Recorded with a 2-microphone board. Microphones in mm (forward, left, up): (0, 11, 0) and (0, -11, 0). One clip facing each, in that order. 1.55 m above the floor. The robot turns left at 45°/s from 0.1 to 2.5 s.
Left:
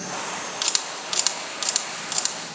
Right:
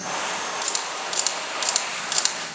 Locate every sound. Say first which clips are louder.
0.6 s a camera shutter: left 1 dB; 30° left (ahead or behind), 1.4 m; by 2.4 s 25° right (ahead or behind), 1.4 m